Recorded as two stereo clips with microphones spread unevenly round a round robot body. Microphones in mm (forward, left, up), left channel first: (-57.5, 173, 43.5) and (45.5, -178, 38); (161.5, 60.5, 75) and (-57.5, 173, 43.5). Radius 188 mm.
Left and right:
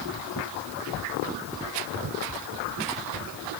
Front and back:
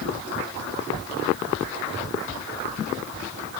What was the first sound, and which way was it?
Only background noise.